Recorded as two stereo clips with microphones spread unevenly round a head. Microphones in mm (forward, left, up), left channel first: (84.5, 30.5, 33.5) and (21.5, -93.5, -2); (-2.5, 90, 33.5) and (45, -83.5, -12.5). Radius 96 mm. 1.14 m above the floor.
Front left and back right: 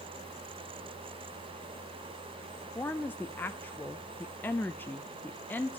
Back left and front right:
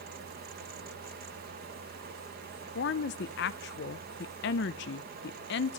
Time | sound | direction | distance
2.8 | a woman speaking | 145° left | 0.5 m